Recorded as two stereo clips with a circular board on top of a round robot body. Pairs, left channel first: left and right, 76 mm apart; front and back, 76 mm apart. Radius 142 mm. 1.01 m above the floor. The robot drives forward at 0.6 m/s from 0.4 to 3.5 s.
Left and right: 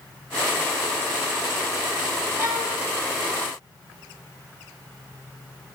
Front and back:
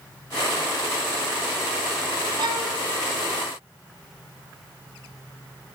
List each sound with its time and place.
2.4 s a violin: 145° right, 2.5 m